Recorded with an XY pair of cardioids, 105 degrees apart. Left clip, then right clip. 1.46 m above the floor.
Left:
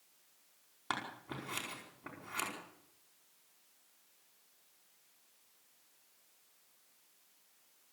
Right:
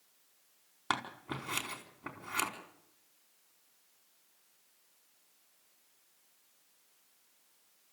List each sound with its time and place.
0.9 s scissors: 35° right, 5 m